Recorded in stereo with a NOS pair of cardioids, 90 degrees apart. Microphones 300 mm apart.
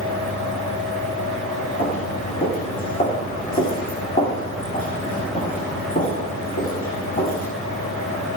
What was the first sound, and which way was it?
A fan, 25° left.